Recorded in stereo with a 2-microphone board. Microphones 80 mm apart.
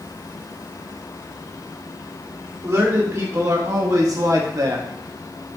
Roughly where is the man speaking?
Right.